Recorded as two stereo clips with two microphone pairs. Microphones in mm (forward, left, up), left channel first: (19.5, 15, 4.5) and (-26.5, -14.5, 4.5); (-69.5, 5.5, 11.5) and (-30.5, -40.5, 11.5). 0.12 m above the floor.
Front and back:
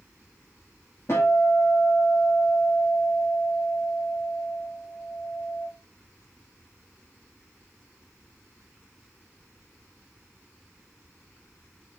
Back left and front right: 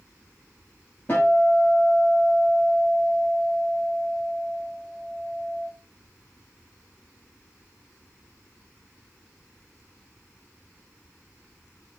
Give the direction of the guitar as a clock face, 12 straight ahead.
10 o'clock.